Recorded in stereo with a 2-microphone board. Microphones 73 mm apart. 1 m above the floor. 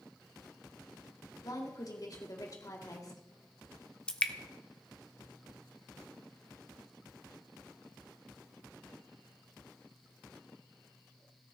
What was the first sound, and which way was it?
A woman speaking, 50° left (ahead or behind).